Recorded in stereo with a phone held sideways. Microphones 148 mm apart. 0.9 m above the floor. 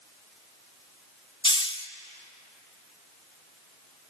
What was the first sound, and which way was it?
A hiss, 35° left (ahead or behind).